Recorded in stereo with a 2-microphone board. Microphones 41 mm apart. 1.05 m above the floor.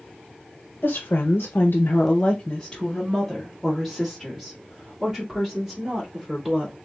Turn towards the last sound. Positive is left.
turn(degrees=-10)  # may be behind; listen again after turning